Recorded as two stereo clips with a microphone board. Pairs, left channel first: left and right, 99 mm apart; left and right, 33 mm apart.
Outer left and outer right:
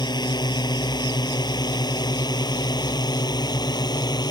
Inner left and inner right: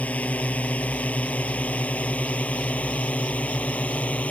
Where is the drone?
45° left (ahead or behind).